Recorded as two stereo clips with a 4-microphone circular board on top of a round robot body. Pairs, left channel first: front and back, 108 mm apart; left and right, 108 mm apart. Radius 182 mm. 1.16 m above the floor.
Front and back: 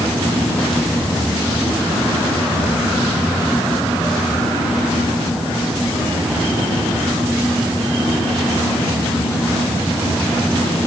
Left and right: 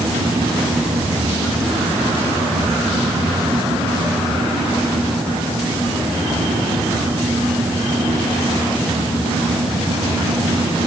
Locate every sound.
Only background noise.